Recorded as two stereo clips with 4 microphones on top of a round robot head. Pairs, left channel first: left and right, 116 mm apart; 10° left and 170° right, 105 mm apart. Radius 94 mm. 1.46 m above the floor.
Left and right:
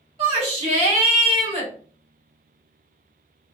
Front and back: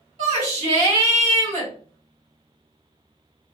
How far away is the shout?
About 1.9 m.